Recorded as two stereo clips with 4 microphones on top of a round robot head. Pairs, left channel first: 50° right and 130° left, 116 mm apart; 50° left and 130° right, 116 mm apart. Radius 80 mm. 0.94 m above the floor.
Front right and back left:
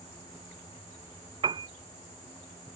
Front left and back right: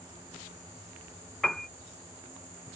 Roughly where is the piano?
Behind left.